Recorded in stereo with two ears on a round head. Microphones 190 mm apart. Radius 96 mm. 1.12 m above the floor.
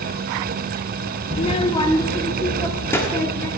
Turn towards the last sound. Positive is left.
turn(degrees=10)  # may be behind; listen again after turning